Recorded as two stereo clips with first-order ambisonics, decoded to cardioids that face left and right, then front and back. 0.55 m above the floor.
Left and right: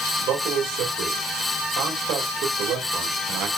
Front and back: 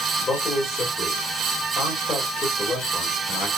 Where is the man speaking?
65° right, 1.8 m.